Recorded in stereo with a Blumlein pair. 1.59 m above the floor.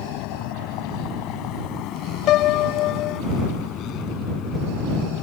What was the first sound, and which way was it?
A vehicle, 40° left.